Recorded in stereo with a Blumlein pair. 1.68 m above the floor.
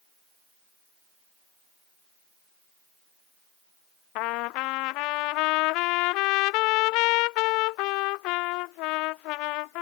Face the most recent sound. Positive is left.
turn(degrees=40)